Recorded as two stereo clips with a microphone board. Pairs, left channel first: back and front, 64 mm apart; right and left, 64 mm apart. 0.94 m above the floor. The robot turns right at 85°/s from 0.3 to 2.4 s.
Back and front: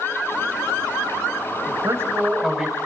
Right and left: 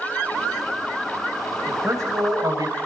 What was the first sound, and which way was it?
A man speaking, 25° left.